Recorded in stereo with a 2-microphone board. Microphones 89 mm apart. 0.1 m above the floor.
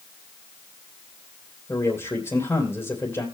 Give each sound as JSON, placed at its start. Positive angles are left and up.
{"t": 1.7, "sound": "a man speaking", "side_deg": 25, "distance_m": 3.0}